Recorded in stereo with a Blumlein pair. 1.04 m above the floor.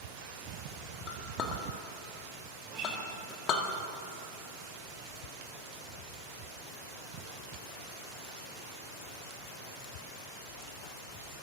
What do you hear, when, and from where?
1.1 s a clink: 35° left, 1.6 m
2.6 s a guitar: 35° right, 5.5 m